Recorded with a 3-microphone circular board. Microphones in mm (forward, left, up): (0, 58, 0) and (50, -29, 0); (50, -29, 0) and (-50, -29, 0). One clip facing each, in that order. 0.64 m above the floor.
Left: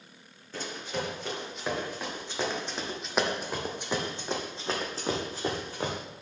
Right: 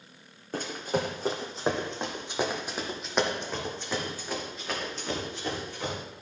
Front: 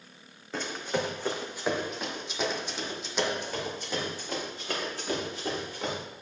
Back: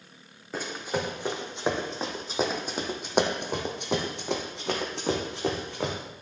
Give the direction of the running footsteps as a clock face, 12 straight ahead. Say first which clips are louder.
Right 5 dB, even; 3 o'clock.